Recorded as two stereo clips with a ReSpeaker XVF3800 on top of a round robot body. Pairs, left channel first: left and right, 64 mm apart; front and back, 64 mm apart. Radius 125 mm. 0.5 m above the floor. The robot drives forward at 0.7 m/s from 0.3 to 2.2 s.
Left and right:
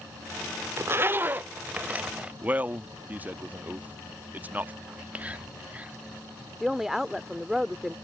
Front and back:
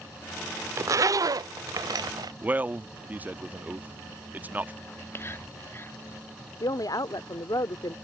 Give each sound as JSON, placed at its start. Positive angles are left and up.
{"t": 0.8, "sound": "a zipper", "azimuth_deg": -140}
{"t": 2.4, "sound": "a man speaking", "azimuth_deg": -135}
{"t": 4.9, "sound": "whispering", "azimuth_deg": -30}
{"t": 6.6, "sound": "a woman speaking", "azimuth_deg": -5}